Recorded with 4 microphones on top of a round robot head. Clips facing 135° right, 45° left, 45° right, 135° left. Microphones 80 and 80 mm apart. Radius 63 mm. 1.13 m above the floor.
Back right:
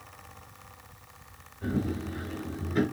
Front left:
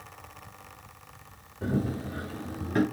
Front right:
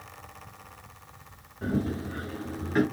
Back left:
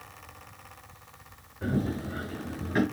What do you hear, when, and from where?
1.6 s running footsteps: 45° left, 2.5 m